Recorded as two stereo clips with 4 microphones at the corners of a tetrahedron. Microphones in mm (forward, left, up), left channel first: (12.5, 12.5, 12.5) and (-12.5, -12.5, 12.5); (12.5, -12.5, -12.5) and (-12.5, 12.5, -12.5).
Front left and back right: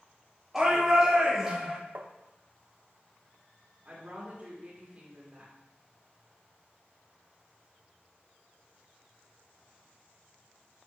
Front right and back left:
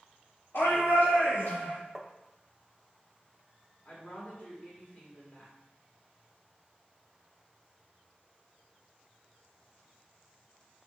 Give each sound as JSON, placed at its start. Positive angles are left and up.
{"t": 0.5, "sound": "a shout", "azimuth_deg": -50, "distance_m": 3.0}
{"t": 1.9, "sound": "tapping", "azimuth_deg": -130, "distance_m": 0.6}
{"t": 3.9, "sound": "a woman speaking", "azimuth_deg": -90, "distance_m": 2.0}